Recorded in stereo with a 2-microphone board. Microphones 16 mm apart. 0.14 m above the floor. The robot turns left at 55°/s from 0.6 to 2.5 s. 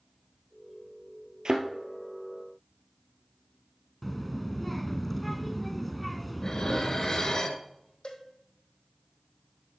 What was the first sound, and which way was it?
A thud, 60° right (ahead or behind).